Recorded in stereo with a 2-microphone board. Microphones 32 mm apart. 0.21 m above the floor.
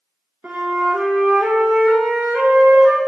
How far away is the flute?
About 0.7 m.